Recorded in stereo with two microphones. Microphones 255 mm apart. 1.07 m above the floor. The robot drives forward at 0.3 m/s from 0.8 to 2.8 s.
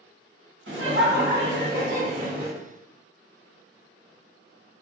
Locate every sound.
0.7 s laughter: 50° right (ahead or behind), 0.9 m; by 2.5 s 35° right (ahead or behind), 1.3 m